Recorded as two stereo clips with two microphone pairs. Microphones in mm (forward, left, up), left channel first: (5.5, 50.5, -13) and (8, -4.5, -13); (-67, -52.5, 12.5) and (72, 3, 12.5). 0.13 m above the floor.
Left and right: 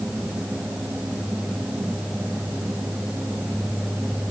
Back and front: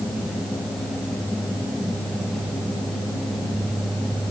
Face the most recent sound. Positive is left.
No sound to turn to.